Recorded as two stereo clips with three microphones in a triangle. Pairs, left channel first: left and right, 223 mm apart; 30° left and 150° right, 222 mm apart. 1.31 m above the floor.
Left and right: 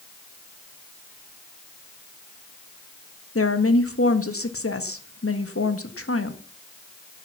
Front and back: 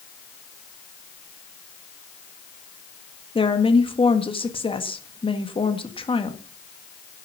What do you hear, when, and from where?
3.4 s a woman speaking: 95° left, 1.6 m